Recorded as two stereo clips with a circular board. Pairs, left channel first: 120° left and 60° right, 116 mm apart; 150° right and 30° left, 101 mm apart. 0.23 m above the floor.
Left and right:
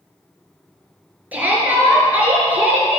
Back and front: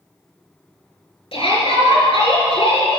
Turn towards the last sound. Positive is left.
turn(degrees=-135)